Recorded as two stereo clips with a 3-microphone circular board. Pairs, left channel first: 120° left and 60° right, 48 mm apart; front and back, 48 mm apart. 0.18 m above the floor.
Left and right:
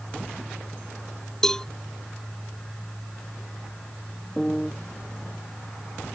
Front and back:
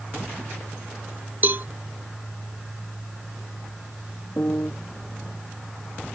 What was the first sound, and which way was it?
A cowbell, 170° right.